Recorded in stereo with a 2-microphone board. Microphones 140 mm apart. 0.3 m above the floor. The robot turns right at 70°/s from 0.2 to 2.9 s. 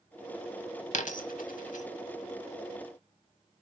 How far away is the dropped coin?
About 0.5 m.